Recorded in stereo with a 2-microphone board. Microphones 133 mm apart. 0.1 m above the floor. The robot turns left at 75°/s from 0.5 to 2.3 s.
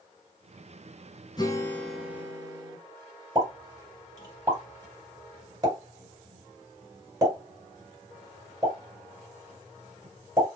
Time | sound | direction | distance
1.4 | a guitar | 45° left | 0.8 m
3.4 | a pop | 25° right (ahead or behind) | 2.5 m